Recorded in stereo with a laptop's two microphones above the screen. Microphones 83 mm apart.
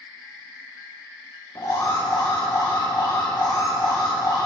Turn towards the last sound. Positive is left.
turn(degrees=50)  # may be behind; listen again after turning